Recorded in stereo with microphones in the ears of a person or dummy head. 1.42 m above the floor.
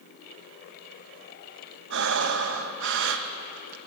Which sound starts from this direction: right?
Breathing, at 1.9 s.